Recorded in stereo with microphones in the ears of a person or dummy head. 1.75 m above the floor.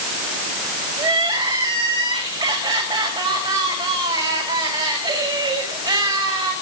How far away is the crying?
About 5.5 m.